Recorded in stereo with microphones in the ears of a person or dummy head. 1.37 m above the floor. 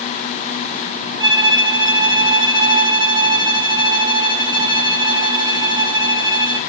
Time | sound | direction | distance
1.2 | a violin | 25° right (ahead or behind) | 1.2 m